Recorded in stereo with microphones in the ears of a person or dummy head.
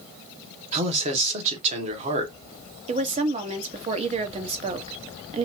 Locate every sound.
0.7 s a man speaking: 30° right (ahead or behind), 1.2 m
2.9 s a woman speaking: 30° right (ahead or behind), 0.8 m